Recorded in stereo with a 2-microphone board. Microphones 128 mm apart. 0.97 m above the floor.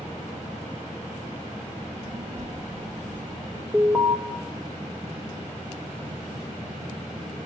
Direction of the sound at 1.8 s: 15° right (ahead or behind).